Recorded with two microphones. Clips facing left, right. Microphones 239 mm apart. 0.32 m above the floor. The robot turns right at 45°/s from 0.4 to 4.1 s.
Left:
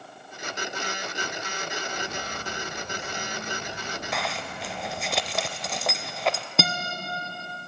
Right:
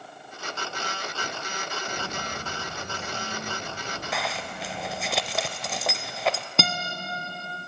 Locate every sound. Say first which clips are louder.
1.9 s footsteps: even; 30° right (ahead or behind), 3 m; by 5.1 s 20° right (ahead or behind), 6 m
4.1 s a zipper: right 1 dB; centre (ahead or behind), 0.6 m
6.6 s a guitar: left 1 dB; centre (ahead or behind), 1.3 m